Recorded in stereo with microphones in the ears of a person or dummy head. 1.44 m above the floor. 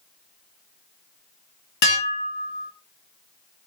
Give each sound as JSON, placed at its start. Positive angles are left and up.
{"t": 1.8, "sound": "dishes clattering", "side_deg": 50, "distance_m": 0.7}